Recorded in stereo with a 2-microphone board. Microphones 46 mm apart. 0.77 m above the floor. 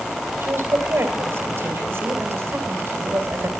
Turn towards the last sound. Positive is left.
turn(degrees=-60)  # may be behind; listen again after turning